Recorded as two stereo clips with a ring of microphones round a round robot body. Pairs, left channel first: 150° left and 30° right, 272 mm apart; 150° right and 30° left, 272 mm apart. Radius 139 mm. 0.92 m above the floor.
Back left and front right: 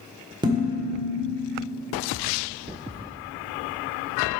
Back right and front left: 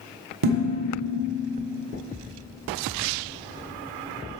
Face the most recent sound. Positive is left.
turn(degrees=45)